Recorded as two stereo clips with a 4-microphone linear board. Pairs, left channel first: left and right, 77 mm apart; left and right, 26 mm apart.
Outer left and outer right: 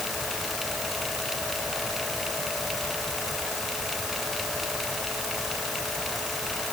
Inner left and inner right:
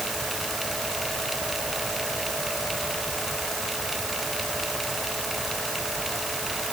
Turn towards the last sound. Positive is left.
No sound to turn to.